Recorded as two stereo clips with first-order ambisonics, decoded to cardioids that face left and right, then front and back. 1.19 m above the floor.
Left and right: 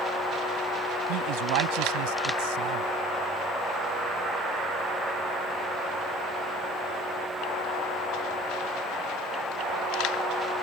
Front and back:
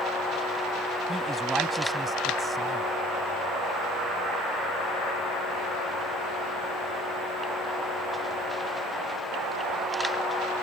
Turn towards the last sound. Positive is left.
turn(degrees=-95)